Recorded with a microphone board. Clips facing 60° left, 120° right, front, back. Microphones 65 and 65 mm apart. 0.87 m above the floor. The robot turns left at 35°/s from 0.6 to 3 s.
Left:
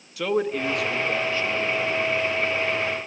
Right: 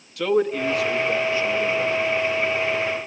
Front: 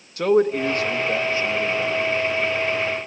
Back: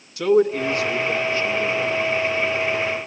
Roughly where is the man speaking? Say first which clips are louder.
Right 3 dB, back 1 dB; ahead right.